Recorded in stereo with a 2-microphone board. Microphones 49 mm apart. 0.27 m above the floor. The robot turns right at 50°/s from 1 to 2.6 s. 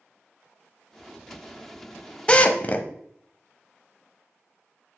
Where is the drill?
20° left (ahead or behind), 0.7 m; by 2.9 s 30° left (ahead or behind), 0.7 m.